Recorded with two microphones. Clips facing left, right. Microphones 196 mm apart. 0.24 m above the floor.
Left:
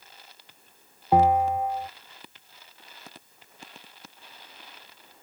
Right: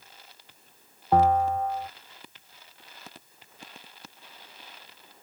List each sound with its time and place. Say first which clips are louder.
1.1 s a bell: left 1 dB; 15° left (ahead or behind)